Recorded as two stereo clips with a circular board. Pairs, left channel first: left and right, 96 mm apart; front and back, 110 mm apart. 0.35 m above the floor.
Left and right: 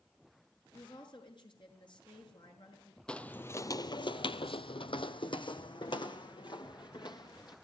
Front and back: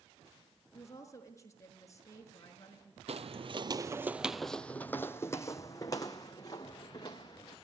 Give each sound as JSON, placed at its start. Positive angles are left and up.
{"t": 0.7, "sound": "a woman speaking", "azimuth_deg": 60, "distance_m": 5.5}
{"t": 3.1, "sound": "footsteps", "azimuth_deg": 170, "distance_m": 0.8}